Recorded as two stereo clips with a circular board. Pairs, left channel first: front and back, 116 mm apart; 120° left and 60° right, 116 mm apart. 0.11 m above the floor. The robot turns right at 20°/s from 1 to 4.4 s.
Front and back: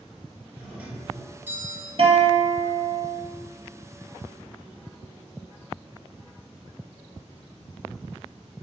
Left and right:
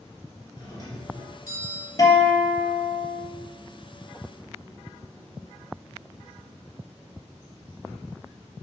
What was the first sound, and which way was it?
A doorbell, 125° left.